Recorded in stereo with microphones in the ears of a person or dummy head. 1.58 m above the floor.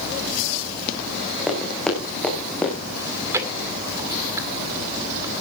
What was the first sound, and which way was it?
Running footsteps, 5° left (ahead or behind).